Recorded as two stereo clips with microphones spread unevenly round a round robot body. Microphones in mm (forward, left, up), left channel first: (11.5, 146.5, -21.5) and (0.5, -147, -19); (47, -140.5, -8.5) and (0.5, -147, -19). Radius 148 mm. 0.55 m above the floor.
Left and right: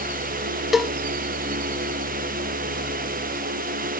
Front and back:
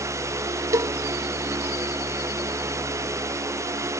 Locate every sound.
0.7 s a cowbell: straight behind